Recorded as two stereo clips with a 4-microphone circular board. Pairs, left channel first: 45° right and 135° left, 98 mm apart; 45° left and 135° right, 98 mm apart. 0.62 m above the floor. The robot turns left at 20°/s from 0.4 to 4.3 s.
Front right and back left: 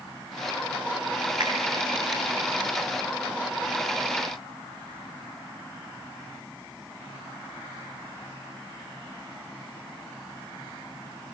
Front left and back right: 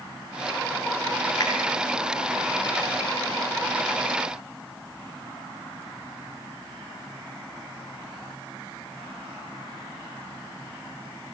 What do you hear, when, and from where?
1.4 s a finger snap: 95° left, 7 m